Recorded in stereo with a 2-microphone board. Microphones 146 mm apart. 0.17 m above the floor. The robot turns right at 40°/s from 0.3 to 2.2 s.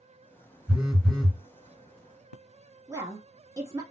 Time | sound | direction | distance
0.7 | a phone buzzing | 15° right (ahead or behind) | 1.4 m
2.9 | a woman speaking | 20° right (ahead or behind) | 1.2 m